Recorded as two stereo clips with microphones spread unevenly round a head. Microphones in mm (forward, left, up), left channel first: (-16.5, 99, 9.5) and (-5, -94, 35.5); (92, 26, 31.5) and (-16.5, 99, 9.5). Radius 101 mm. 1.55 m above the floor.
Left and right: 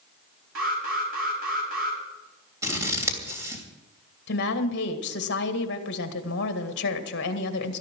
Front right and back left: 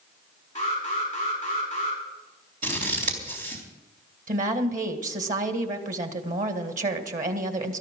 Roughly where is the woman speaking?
Behind left.